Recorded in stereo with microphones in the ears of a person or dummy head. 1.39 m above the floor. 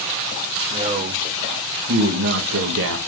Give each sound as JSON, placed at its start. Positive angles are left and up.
{"t": 0.7, "sound": "a man speaking", "side_deg": -35, "distance_m": 1.8}